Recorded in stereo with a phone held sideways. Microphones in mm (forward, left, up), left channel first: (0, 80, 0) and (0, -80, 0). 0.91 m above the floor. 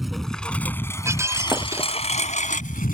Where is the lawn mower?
Centre (ahead or behind); by 3.0 s 65° left (ahead or behind).